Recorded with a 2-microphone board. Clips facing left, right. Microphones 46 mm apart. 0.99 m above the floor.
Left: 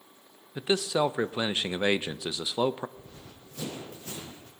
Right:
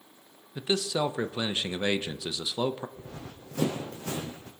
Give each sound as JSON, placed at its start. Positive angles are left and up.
{"t": 0.6, "sound": "a man speaking", "side_deg": 15, "distance_m": 0.6}
{"t": 3.0, "sound": "running footsteps", "side_deg": -65, "distance_m": 2.5}